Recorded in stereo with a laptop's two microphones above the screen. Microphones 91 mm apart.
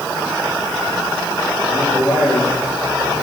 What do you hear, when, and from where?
1.7 s a man speaking: 5° left (ahead or behind), 9.5 m